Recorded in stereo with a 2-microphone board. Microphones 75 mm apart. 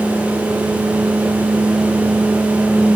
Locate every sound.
Only background noise.